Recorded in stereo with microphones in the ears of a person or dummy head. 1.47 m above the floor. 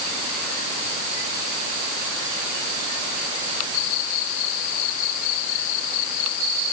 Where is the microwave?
No microwave in this recording.